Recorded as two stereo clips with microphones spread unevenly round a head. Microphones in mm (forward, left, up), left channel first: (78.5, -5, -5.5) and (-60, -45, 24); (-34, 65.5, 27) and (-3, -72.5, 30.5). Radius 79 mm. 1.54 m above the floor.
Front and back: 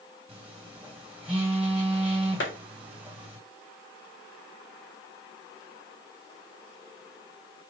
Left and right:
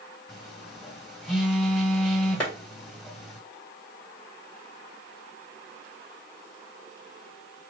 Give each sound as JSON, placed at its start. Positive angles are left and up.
{"t": 0.3, "sound": "a phone buzzing", "azimuth_deg": -160, "distance_m": 1.3}
{"t": 2.4, "sound": "a clap", "azimuth_deg": 20, "distance_m": 2.0}